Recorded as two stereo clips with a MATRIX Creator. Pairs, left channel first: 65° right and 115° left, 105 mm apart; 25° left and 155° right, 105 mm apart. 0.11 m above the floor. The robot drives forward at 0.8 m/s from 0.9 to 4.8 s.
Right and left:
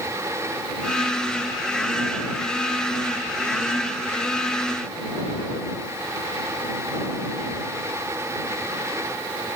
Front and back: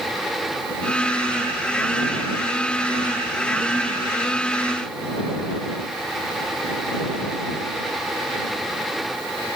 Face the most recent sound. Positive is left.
No sound to turn to.